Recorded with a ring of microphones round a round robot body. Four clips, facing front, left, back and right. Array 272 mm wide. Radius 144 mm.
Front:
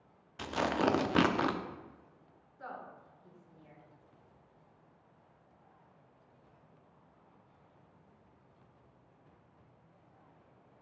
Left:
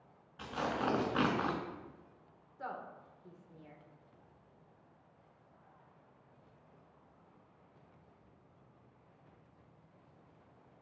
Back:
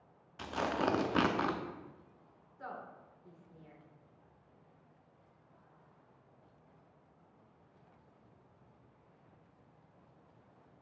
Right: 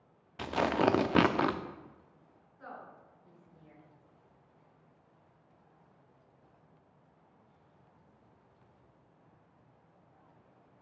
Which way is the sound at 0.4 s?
85° right.